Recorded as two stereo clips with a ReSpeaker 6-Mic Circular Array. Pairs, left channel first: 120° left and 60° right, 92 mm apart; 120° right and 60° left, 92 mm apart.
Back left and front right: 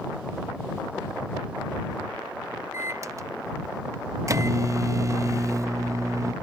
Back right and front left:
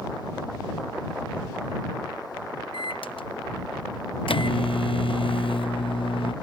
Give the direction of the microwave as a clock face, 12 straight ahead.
4 o'clock.